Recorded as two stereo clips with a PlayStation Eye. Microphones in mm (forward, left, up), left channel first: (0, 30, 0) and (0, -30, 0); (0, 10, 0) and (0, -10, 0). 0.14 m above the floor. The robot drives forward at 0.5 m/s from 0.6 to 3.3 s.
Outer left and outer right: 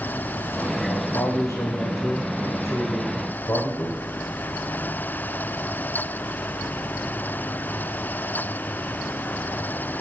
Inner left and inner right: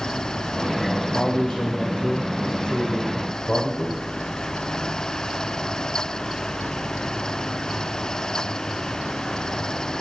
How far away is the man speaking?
About 5.5 m.